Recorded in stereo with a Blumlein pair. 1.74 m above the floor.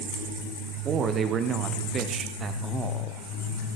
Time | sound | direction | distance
0.8 | a man speaking | 25° right | 1.1 m